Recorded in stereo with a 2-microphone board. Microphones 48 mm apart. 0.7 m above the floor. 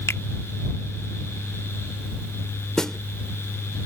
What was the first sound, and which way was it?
A finger snap, 70° left (ahead or behind).